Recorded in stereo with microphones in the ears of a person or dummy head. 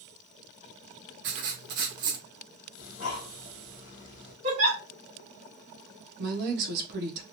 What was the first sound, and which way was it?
Writing, 50° right (ahead or behind).